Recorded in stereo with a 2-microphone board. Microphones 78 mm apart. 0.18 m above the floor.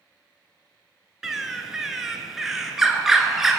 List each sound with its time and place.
1.2 s a bird: 5° right (ahead or behind), 0.7 m